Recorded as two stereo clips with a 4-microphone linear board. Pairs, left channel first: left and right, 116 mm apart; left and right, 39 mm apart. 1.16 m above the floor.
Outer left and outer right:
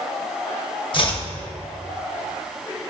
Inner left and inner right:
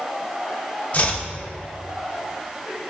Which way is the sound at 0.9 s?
45° left (ahead or behind).